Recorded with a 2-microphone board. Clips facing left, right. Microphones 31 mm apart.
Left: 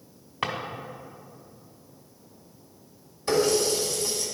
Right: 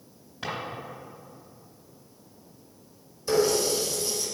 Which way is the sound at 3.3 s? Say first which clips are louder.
Left 1 dB; 45° left (ahead or behind).